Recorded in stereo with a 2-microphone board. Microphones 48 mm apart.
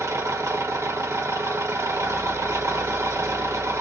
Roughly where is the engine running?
Right.